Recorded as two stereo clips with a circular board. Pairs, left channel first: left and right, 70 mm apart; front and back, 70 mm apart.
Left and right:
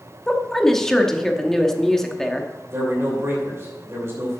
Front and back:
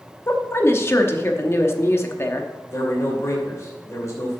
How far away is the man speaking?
About 2.5 m.